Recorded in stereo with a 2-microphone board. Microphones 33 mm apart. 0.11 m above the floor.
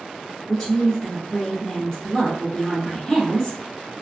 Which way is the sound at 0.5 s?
Centre (ahead or behind).